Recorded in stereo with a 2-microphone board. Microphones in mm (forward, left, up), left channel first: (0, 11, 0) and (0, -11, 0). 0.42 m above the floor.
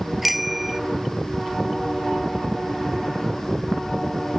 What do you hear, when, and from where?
0.2 s a bicycle bell: 10° right (ahead or behind)